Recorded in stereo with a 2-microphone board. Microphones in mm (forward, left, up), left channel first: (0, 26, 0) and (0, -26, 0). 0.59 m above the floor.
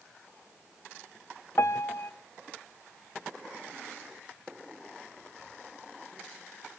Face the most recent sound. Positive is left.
turn(degrees=60)  # may be behind; listen again after turning